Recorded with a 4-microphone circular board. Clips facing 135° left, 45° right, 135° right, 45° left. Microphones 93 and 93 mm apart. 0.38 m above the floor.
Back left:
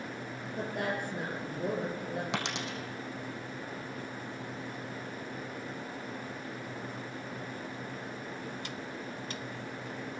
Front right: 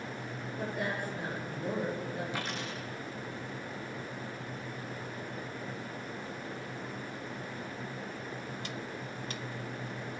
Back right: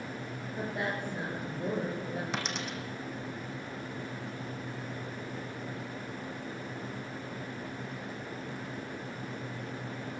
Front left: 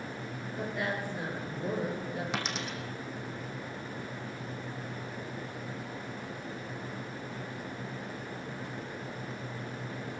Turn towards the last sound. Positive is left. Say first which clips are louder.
# back left 2 dB, even
turn(degrees=135)